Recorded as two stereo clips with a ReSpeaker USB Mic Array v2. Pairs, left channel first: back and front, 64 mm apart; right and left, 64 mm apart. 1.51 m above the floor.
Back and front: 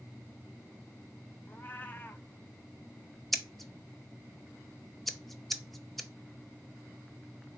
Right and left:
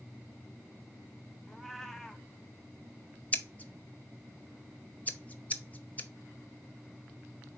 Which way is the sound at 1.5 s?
170° right.